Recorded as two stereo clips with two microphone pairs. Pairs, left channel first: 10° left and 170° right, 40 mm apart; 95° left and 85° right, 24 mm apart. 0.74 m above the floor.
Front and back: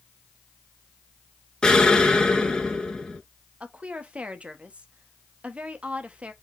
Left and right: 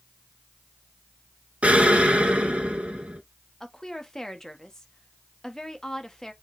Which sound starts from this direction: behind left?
A woman speaking, at 3.6 s.